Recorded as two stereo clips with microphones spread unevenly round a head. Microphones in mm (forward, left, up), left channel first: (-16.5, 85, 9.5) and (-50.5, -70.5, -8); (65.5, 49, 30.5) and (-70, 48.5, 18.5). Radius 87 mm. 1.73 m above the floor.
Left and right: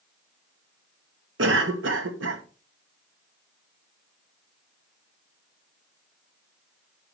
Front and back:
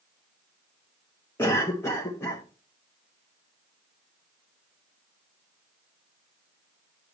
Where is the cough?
75° right, 1.2 m.